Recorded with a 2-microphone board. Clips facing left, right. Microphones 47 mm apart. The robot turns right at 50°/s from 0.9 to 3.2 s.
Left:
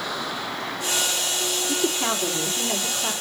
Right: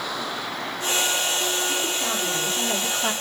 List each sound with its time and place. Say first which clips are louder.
1.7 s a woman speaking: left 1 dB; 140° left, 3.5 m; by 3.1 s 145° right, 3.5 m